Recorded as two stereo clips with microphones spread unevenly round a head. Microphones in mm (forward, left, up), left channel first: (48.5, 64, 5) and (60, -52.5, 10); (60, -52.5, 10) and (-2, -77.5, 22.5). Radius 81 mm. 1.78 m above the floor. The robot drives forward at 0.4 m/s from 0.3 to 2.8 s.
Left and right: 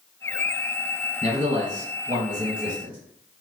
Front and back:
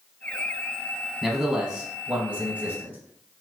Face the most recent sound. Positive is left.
turn(degrees=-100)